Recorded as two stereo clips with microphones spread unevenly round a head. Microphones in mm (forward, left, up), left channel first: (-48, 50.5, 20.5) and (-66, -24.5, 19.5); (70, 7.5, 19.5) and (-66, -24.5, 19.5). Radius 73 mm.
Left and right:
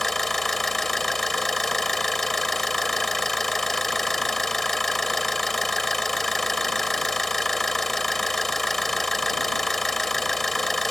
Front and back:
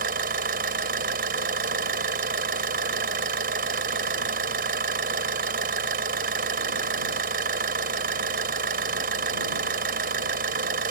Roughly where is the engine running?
Behind.